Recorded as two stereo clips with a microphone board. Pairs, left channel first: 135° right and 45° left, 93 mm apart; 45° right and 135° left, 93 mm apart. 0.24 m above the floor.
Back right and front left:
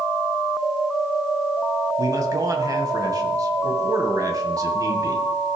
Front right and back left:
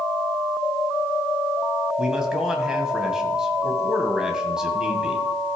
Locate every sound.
2.0 s a man speaking: 55° left, 1.9 m